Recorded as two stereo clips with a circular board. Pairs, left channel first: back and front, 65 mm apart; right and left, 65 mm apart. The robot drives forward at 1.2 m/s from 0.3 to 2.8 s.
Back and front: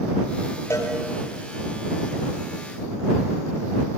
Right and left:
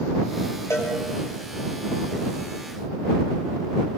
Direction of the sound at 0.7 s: 130° right.